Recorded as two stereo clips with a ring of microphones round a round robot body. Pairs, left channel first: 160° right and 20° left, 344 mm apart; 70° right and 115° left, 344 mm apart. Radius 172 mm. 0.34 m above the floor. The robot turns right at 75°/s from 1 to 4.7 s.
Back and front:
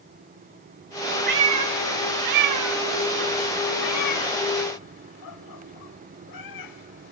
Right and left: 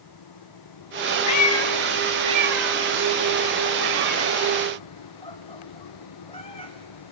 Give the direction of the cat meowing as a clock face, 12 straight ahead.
1 o'clock.